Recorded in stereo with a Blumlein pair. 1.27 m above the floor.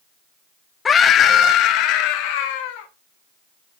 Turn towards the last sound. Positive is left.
turn(degrees=50)